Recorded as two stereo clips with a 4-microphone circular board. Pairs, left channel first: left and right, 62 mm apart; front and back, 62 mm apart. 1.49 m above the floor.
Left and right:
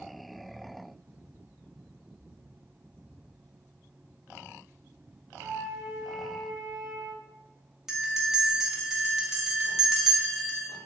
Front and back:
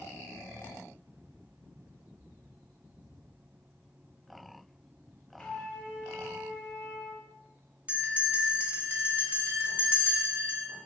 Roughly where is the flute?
Right.